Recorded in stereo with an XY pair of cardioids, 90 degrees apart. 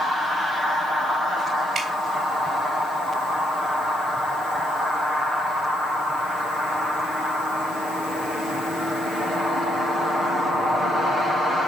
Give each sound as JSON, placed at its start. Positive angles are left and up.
{"t": 1.8, "sound": "dripping", "azimuth_deg": -55, "distance_m": 3.0}